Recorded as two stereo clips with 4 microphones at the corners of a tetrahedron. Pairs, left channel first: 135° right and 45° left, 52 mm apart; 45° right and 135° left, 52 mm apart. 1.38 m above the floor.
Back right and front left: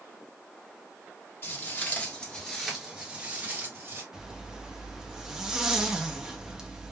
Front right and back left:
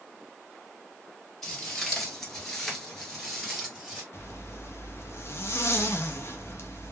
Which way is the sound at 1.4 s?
125° right.